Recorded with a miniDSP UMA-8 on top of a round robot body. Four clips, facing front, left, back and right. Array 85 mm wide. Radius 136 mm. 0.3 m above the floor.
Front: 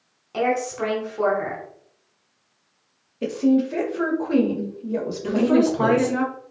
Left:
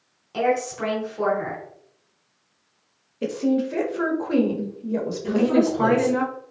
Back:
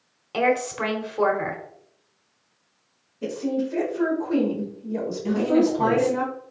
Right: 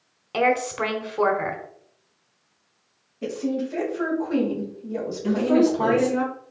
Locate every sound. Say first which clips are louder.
0.3 s a woman speaking: right 1 dB, even; 120° right, 1.2 m
3.2 s a woman speaking: left 4 dB, front 6 dB; 45° left, 1.6 m
5.2 s a woman speaking: right 1 dB, front 2 dB; 5° right, 2 m